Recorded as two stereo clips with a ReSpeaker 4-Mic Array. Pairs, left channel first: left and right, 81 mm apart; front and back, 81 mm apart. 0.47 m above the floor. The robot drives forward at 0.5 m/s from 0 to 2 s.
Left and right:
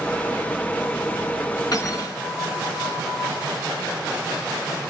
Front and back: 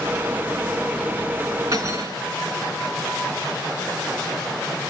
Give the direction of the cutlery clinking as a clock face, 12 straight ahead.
8 o'clock.